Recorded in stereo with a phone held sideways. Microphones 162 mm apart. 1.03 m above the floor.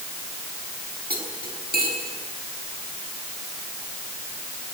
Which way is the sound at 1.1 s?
70° right (ahead or behind).